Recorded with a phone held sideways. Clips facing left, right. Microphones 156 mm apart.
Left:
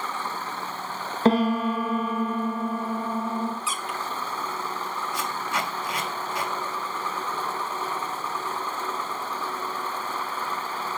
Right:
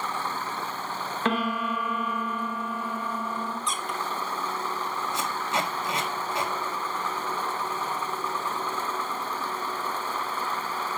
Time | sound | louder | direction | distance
1.2 | a piano | left 7 dB | 35° left (ahead or behind) | 1.0 m
3.7 | a squeak | even | 5° left (ahead or behind) | 1.0 m
5.1 | tape being pulled | right 1 dB | 25° right (ahead or behind) | 1.7 m